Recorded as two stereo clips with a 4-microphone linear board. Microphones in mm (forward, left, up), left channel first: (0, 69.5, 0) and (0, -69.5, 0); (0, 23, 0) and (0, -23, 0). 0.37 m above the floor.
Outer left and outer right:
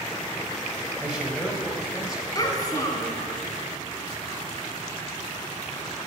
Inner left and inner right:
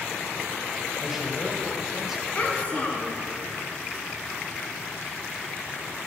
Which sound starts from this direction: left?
A child speaking, at 2.4 s.